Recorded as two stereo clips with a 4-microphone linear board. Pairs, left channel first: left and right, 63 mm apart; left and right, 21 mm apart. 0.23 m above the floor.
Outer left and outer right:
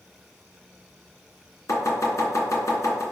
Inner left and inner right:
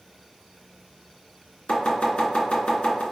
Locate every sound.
1.7 s chopping: 55° left (ahead or behind), 2.5 m